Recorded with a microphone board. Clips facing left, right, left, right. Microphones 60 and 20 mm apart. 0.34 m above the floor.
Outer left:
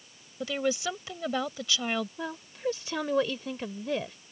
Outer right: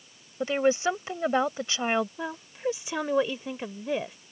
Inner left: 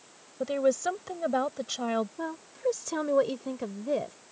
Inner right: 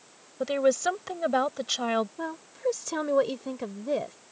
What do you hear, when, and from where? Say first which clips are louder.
0.4 s a woman speaking: outer right 6 dB, inner right 2 dB; 35° right (ahead or behind)
2.2 s a woman speaking: outer right 2 dB, inner right 1 dB; 15° right (ahead or behind)